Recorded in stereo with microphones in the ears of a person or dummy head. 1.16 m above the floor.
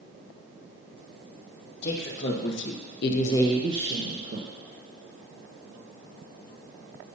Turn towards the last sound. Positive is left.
turn(degrees=-50)  # may be behind; listen again after turning